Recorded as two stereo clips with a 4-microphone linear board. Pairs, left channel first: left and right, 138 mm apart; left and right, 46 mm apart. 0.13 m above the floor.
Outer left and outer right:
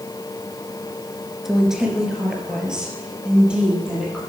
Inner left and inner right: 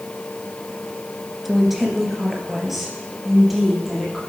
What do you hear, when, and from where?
1.4 s a woman speaking: centre (ahead or behind), 1.6 m; by 4.2 s 5° right (ahead or behind), 4 m